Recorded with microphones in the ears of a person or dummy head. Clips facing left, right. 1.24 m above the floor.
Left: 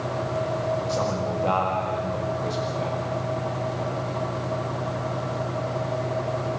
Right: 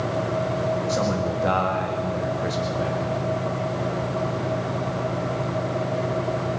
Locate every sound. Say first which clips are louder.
0.9 s a man speaking: right 2 dB; 25° right (ahead or behind), 2 m